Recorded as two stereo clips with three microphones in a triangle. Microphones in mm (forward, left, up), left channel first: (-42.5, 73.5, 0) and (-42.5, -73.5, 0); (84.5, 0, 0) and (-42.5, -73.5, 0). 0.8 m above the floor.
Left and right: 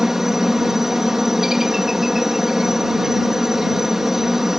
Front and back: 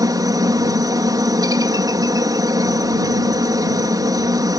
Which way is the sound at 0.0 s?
175° right.